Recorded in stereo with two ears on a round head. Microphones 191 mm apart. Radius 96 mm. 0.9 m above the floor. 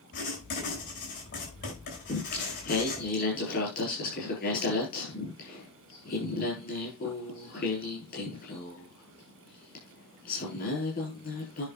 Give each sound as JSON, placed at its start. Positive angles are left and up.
{"t": 0.1, "sound": "writing", "side_deg": 55, "distance_m": 8.5}
{"t": 2.1, "sound": "singing", "side_deg": 45, "distance_m": 7.0}